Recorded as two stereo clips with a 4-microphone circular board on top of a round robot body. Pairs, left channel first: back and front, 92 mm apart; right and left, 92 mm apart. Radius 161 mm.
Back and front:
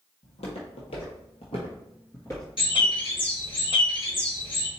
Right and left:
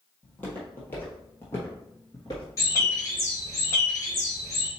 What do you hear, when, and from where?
0.2 s footsteps: 165° right, 1.7 m; by 3.1 s 20° right, 0.7 m
2.6 s a bird: 150° right, 1.3 m